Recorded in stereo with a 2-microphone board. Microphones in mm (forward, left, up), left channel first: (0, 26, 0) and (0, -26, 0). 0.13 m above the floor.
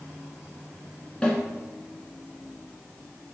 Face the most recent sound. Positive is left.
turn(degrees=15)  # may be behind; listen again after turning